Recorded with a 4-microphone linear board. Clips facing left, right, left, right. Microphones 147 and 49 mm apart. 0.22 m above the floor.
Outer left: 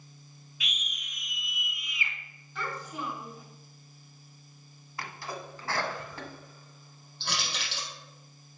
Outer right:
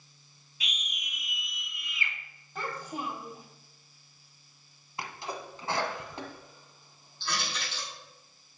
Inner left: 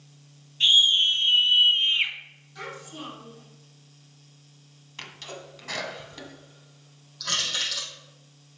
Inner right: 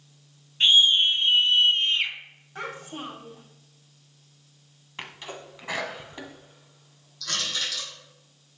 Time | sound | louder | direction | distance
0.6 | a scream | outer right 1 dB, inner right 1 dB | 35° right (ahead or behind) | 1.1 m
2.5 | a child speaking | outer right 1 dB, inner right 3 dB | 40° right (ahead or behind) | 4 m
5.0 | a sneeze | outer right 1 dB, inner right 2 dB | 20° right (ahead or behind) | 1.5 m
7.2 | crushing | outer right 1 dB, inner left 1 dB | 75° left (ahead or behind) | 4 m